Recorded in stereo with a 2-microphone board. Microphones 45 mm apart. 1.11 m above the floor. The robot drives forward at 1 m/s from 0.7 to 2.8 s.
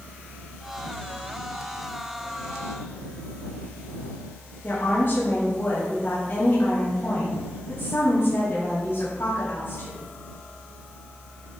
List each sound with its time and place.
4.6 s a woman speaking: 45° left (ahead or behind), 2.5 m